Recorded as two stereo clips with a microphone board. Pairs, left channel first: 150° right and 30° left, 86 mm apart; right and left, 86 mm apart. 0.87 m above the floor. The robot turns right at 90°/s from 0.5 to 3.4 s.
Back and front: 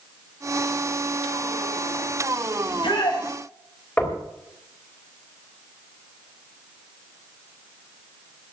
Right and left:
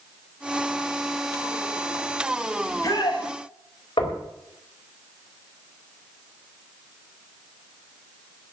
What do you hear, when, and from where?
2.6 s a shout: 165° right, 5 m; by 3.3 s 105° right, 5 m
4.0 s knocking: 80° right, 4 m